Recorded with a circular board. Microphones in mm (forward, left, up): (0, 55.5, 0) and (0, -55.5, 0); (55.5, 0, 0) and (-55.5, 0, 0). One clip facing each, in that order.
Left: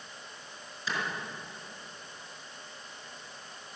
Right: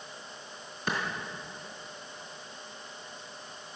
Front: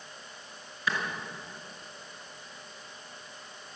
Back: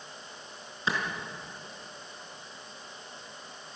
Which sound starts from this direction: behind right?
A clap, at 0.9 s.